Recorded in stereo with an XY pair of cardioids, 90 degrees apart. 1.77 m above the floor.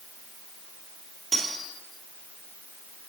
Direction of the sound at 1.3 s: 40° right.